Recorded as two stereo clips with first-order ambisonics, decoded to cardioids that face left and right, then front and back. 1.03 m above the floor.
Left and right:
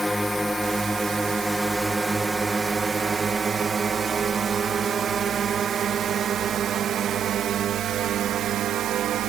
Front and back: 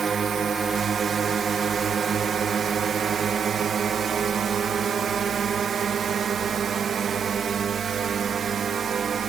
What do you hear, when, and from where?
0.0 s a drone: 175° left; by 9.3 s 125° right